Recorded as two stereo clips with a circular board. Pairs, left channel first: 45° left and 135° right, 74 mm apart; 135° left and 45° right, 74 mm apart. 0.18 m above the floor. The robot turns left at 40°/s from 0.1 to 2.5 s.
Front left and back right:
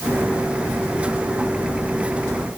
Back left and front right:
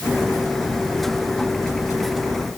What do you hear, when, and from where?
Only background noise.